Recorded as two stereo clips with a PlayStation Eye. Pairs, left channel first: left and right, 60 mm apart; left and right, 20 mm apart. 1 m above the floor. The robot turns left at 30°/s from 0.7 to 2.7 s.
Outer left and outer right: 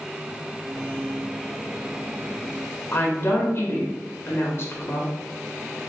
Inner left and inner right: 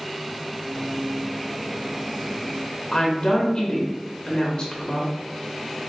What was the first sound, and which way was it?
A woman speaking, 40° left (ahead or behind).